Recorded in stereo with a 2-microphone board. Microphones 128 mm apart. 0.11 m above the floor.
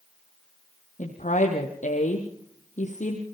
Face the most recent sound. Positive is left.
turn(degrees=75)  # may be behind; listen again after turning